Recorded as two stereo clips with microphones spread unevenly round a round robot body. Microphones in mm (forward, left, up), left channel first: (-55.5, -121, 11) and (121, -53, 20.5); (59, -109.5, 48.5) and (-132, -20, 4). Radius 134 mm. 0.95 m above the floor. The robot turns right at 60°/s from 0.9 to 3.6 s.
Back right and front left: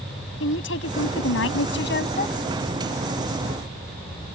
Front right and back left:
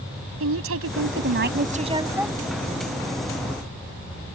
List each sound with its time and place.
0.4 s a woman speaking: 160° left; by 2.4 s 115° right